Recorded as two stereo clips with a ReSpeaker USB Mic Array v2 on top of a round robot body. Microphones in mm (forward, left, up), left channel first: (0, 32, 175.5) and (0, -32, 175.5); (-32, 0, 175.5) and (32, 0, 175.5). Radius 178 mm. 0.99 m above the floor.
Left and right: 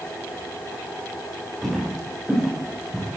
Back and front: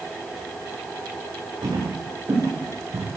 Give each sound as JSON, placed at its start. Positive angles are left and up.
{"t": 1.6, "sound": "footsteps", "azimuth_deg": 0, "distance_m": 7.0}